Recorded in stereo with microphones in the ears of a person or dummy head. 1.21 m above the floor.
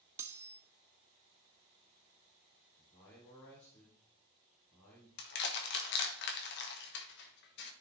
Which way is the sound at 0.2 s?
15° right (ahead or behind).